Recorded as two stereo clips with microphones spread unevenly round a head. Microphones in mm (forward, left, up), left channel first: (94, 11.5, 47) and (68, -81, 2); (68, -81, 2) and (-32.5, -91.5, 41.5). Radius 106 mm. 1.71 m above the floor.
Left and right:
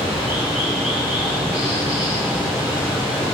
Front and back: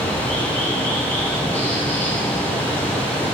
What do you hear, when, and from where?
0.0 s running water: 110° left, 1.5 m